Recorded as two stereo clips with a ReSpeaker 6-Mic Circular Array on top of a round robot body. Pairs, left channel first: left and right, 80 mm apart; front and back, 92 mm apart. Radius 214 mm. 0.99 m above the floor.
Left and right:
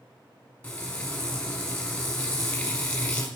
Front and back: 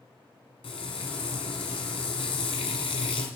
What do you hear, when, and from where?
0.6 s frying: 25° left, 1.1 m